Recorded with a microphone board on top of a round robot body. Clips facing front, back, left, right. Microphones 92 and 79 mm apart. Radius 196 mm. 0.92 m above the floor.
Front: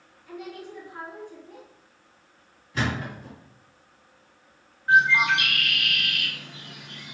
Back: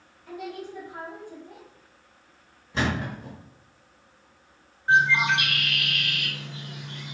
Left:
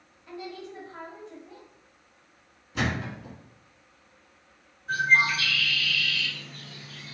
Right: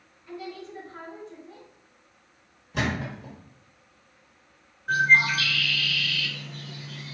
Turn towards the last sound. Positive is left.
turn(degrees=-115)